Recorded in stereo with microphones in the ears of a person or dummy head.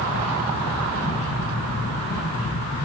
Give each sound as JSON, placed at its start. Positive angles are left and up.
{"t": 0.0, "sound": "a fan", "side_deg": 85, "distance_m": 8.5}